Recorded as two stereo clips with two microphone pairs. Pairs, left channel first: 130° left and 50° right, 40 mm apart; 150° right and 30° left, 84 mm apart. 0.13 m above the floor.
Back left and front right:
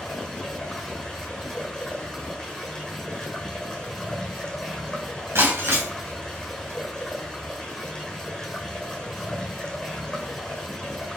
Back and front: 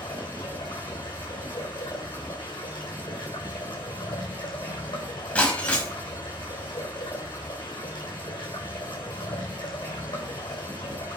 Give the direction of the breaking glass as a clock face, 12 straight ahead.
2 o'clock.